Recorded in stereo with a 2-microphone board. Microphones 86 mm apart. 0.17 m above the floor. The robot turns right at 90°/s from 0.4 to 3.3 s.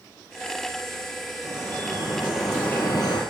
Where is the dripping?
90° right, 4 m; by 3.2 s 70° left, 4 m.